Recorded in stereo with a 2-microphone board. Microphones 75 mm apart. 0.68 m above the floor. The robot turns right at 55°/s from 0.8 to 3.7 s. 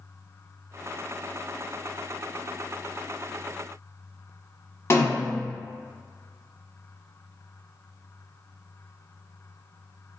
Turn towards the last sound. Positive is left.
turn(degrees=40)  # may be behind; listen again after turning